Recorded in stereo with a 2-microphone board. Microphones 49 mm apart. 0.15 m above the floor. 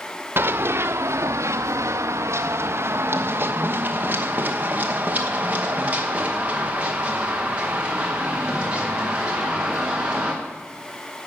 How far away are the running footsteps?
About 1.0 m.